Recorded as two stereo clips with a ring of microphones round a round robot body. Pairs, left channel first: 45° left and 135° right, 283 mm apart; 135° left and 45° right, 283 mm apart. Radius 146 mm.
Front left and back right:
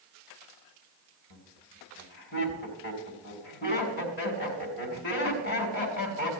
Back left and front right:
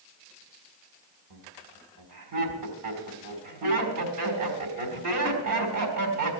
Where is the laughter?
10° right, 4 m.